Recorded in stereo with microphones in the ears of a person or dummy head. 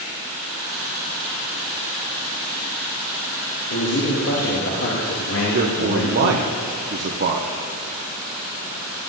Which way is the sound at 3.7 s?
85° left.